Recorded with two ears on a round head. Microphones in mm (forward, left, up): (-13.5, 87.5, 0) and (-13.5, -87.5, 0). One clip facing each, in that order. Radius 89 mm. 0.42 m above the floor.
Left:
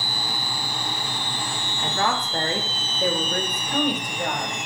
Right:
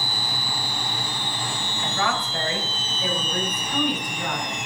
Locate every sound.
1.8 s a woman speaking: 30° left (ahead or behind), 1.1 m; by 4.5 s 35° left (ahead or behind), 2 m